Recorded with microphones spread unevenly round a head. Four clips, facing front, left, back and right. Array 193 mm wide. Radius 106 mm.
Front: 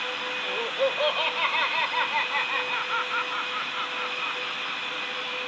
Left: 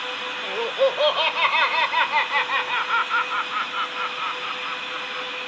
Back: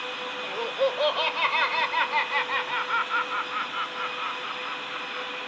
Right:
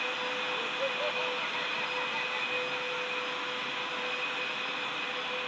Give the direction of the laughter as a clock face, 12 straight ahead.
9 o'clock.